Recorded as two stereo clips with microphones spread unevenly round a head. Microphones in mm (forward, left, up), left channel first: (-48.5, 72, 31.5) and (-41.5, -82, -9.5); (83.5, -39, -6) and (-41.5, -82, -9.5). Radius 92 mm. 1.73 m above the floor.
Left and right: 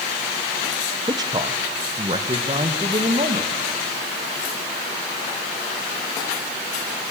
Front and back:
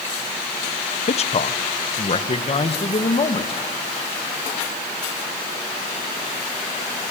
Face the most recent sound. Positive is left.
turn(degrees=-20)